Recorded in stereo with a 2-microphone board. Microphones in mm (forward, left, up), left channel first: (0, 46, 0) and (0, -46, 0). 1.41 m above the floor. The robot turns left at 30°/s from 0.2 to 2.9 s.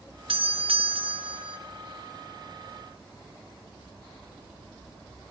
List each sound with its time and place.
0.3 s a doorbell: 80° right, 1.7 m; by 1.6 s 120° right, 1.7 m